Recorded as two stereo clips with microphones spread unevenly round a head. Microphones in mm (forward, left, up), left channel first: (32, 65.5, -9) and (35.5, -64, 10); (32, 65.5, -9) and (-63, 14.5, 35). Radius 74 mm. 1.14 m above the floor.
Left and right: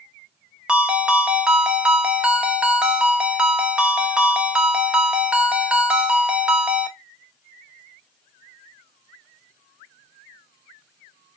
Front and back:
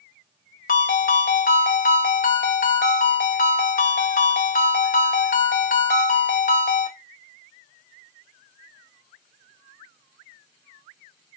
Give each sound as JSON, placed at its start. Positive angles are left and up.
{"t": 0.7, "sound": "a ringtone", "azimuth_deg": -10, "distance_m": 0.7}